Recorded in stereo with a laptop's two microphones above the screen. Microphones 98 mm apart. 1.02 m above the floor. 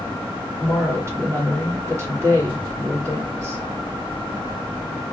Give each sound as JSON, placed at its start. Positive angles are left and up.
{"t": 0.6, "sound": "a woman speaking", "side_deg": -30, "distance_m": 2.5}